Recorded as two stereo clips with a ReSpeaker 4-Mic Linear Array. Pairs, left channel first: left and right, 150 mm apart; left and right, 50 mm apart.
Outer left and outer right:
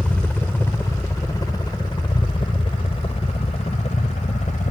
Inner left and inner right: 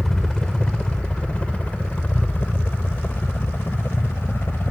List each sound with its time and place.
0.0 s a helicopter: 10° left (ahead or behind); by 4.7 s 50° left (ahead or behind)